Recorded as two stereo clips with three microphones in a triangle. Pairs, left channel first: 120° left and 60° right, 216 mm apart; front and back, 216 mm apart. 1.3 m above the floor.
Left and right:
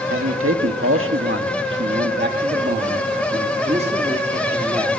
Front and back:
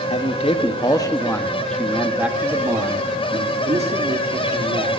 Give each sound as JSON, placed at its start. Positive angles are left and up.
{"t": 0.1, "sound": "a man speaking", "azimuth_deg": -60, "distance_m": 2.0}